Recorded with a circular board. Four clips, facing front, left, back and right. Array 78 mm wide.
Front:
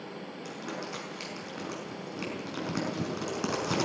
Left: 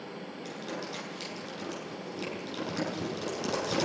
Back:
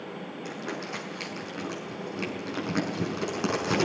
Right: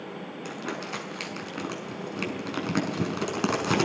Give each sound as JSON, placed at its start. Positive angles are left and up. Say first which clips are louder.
{"t": 0.5, "sound": "crumpling", "louder": "right 4 dB, back 3 dB", "azimuth_deg": -100, "distance_m": 6.0}